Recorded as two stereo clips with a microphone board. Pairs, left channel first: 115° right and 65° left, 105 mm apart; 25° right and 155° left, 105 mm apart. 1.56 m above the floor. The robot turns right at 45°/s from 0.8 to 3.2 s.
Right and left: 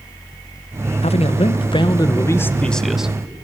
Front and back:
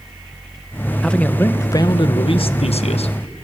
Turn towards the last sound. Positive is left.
turn(degrees=-10)